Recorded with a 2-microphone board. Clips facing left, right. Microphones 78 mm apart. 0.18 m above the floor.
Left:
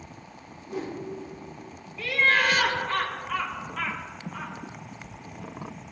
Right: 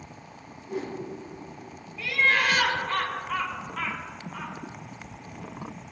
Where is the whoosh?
60° right (ahead or behind), 2.5 m.